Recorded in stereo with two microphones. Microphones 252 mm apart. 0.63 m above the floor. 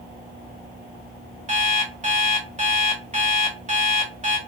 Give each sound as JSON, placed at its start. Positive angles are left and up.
{"t": 1.5, "sound": "an alarm clock", "side_deg": -30, "distance_m": 1.0}